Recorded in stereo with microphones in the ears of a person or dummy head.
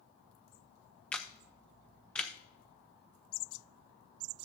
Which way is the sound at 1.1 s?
10° left (ahead or behind).